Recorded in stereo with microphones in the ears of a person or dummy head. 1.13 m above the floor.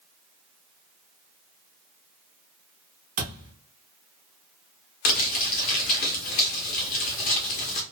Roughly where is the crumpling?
Left.